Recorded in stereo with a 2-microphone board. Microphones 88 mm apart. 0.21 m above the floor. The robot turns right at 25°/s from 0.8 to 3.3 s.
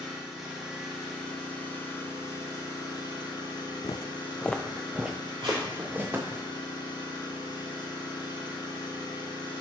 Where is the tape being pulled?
70° right (ahead or behind), 3.5 m.